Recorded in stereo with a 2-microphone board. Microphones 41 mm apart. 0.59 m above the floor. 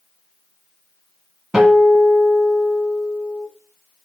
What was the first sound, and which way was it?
A guitar, 25° right (ahead or behind).